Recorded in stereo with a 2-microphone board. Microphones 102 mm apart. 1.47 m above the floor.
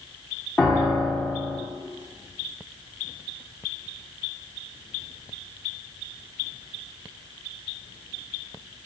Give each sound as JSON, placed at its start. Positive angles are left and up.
{"t": 0.6, "sound": "a piano", "side_deg": 15, "distance_m": 0.7}